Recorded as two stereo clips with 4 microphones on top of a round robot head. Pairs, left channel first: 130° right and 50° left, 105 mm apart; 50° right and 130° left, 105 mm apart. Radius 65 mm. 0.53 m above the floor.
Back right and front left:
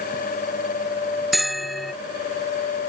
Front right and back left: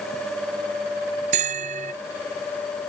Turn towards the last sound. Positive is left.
turn(degrees=140)